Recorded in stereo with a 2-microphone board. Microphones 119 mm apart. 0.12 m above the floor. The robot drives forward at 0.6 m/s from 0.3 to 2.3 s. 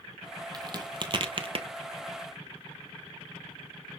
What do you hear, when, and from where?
0.5 s a crack: 35° right (ahead or behind), 1.5 m; by 1.7 s 50° right (ahead or behind), 1.1 m